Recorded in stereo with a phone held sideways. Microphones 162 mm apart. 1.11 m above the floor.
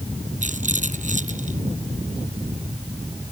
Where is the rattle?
50° right (ahead or behind).